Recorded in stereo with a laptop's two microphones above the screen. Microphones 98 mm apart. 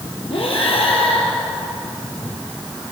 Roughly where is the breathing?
Left.